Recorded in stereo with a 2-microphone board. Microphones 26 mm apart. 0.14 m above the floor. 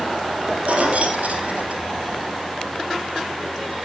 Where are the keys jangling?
60° right (ahead or behind), 3 m.